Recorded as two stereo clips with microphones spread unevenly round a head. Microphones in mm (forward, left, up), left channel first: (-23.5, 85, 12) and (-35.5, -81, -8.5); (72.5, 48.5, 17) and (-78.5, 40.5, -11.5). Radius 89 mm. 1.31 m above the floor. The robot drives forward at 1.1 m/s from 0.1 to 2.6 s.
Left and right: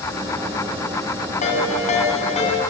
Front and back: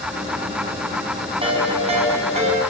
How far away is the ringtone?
About 6 m.